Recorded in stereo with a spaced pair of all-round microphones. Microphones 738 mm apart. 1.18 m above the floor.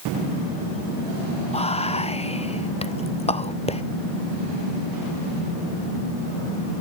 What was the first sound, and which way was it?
Whispering, 10° left (ahead or behind).